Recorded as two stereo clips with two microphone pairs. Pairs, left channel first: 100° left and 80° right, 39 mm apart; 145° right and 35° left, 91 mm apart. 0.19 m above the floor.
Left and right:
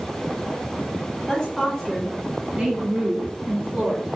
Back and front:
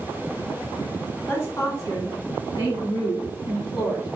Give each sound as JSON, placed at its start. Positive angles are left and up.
{"t": 1.3, "sound": "a woman speaking", "azimuth_deg": 155, "distance_m": 1.7}